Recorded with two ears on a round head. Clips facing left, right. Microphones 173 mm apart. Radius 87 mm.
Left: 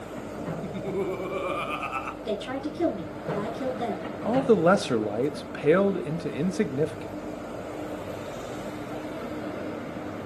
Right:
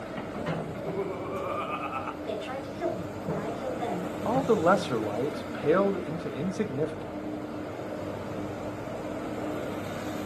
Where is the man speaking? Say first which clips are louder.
Left 3 dB; 25° left (ahead or behind), 0.7 m.